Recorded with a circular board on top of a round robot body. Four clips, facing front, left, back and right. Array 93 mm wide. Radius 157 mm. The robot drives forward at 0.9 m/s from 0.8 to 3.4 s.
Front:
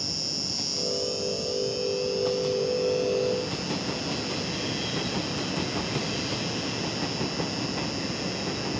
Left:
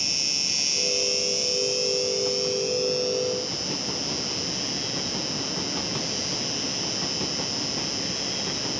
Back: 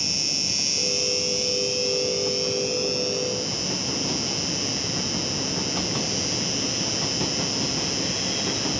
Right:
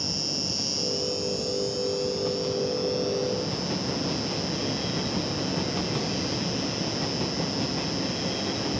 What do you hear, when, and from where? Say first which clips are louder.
0.0 s an insect: right 5 dB, back 2 dB; 125° left; by 8.8 s 160° left